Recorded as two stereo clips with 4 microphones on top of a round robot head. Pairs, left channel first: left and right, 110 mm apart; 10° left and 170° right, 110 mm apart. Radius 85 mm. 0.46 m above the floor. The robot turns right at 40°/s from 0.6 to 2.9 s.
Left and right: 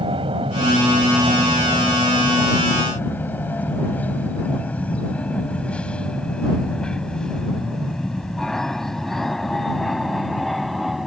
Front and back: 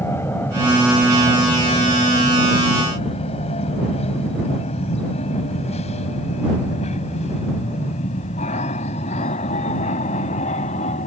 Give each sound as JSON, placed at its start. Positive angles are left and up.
{"t": 0.0, "sound": "an aircraft", "azimuth_deg": -60}